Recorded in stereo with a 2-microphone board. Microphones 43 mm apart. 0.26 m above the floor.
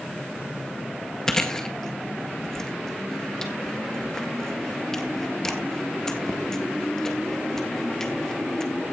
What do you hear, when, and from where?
1.3 s chewing: 15° left (ahead or behind), 1.8 m